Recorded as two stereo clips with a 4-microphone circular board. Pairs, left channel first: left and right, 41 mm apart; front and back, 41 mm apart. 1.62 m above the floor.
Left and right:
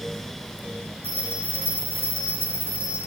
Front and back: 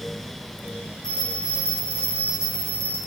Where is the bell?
70° right, 5 m.